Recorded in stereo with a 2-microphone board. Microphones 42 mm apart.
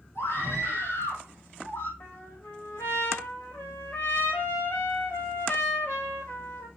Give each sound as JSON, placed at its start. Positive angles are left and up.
{"t": 0.1, "sound": "a scream", "side_deg": 75, "distance_m": 6.0}
{"t": 2.0, "sound": "a trumpet", "side_deg": 65, "distance_m": 5.5}